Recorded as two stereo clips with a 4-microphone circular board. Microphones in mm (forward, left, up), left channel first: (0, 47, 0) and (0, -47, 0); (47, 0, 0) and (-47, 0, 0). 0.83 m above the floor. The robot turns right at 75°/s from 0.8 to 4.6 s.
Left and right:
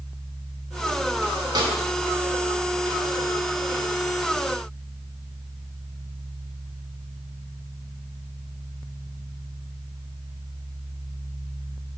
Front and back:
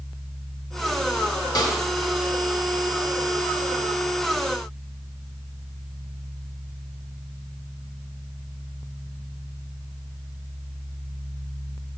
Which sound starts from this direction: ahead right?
A snare drum, at 1.6 s.